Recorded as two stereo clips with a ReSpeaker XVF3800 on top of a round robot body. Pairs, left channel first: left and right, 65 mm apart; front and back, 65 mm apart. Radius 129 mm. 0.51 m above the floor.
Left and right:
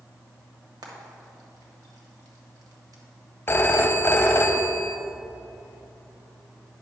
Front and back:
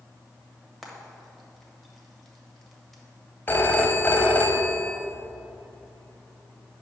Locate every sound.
0.8 s frying: 85° right, 1.5 m
3.5 s a phone ringing: 50° left, 0.8 m